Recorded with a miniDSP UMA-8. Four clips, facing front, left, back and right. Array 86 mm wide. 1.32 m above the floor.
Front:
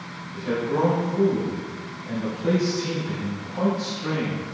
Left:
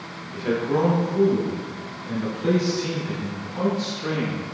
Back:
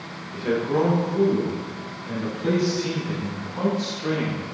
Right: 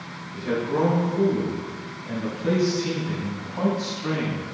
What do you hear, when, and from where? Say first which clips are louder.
0.3 s a man speaking: left 2 dB, back 2 dB; 130° left, 1.1 m; by 4.4 s 100° left, 3 m